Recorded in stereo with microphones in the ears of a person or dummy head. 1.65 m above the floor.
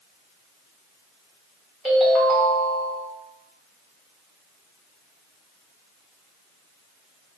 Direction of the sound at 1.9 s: Centre (ahead or behind).